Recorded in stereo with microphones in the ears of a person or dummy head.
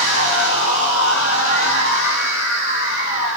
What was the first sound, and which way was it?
A machine running, 70° left (ahead or behind).